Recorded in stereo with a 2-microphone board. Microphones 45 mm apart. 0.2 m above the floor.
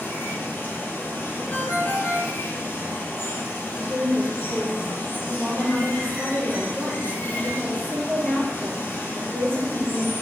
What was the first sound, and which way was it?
Running water, 50° left (ahead or behind).